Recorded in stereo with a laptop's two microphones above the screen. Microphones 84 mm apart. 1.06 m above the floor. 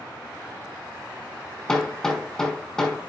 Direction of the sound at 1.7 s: 5° left (ahead or behind).